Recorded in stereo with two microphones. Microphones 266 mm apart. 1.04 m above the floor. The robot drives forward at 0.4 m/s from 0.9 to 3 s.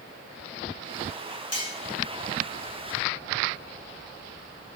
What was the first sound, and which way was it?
Cutlery clinking, 65° left (ahead or behind).